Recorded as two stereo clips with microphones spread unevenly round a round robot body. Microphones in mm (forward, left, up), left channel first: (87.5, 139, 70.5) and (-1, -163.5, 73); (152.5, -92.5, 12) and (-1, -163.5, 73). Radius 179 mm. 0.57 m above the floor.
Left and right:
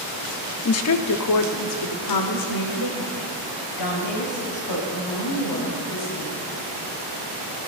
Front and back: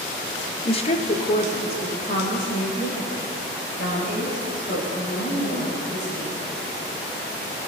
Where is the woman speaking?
40° left, 1.0 m; by 6.5 s 90° left, 5.5 m.